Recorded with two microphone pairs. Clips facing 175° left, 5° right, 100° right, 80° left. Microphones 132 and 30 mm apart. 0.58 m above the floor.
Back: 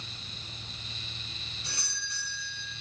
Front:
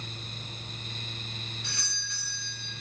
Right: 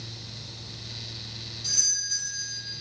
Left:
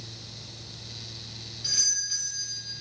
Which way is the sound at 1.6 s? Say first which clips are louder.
Front 1 dB, left 1 dB; 125° left.